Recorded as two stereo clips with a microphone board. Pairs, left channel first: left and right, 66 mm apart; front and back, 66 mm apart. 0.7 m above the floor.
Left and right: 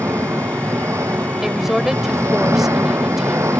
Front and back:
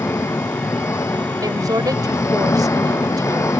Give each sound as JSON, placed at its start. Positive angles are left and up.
{"t": 0.0, "sound": "an engine running", "azimuth_deg": -45}
{"t": 1.4, "sound": "a woman speaking", "azimuth_deg": -175}